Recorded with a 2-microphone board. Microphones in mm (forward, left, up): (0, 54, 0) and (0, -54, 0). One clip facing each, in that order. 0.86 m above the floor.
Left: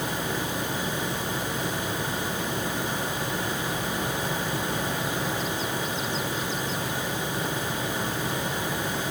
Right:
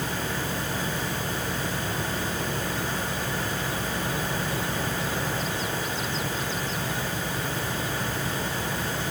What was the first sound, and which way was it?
Only background noise.